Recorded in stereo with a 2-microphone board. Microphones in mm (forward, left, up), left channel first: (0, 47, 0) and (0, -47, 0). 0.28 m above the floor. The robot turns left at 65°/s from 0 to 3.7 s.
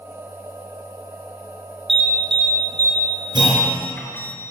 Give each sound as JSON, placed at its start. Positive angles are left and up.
{"t": 1.9, "sound": "an alarm", "side_deg": -70, "distance_m": 5.0}
{"t": 3.3, "sound": "a clunk", "side_deg": -50, "distance_m": 5.0}